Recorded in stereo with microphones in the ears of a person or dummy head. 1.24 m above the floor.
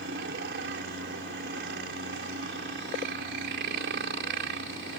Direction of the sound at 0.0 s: 55° right (ahead or behind).